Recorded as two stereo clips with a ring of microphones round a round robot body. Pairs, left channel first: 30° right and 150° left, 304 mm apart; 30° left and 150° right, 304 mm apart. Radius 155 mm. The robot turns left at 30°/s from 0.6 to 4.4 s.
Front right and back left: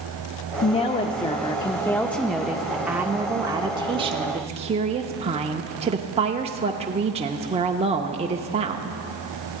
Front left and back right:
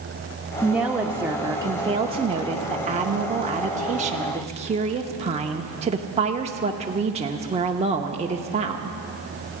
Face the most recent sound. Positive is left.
turn(degrees=180)